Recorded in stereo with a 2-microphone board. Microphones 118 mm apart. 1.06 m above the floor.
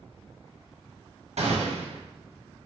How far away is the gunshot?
About 0.7 m.